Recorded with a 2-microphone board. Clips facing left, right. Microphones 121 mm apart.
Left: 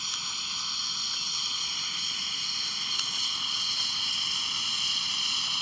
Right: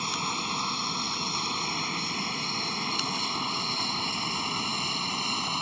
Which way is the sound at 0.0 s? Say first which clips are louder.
Right 12 dB; 60° right (ahead or behind).